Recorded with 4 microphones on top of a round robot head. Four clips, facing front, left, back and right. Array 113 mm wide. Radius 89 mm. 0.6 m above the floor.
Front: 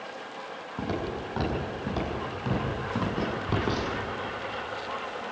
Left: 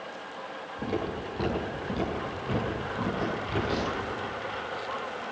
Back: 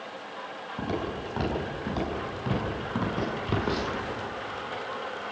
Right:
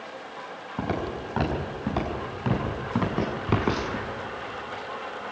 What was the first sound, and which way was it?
Footsteps, 80° right.